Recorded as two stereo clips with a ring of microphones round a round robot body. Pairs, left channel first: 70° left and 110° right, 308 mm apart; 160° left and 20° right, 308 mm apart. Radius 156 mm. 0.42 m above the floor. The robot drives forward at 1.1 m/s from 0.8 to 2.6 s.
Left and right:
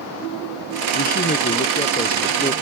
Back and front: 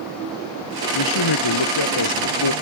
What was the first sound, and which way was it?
A man speaking, 130° left.